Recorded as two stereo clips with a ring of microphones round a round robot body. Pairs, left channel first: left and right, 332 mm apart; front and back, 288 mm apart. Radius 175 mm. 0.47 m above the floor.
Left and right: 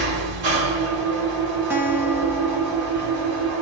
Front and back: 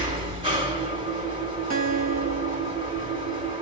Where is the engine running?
105° right, 1.8 m.